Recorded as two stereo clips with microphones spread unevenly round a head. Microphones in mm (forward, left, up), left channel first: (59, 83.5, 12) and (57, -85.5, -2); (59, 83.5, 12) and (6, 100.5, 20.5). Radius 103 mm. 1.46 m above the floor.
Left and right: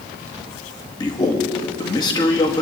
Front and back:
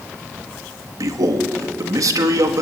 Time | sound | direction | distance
1.0 | a man speaking | 160° left | 2 m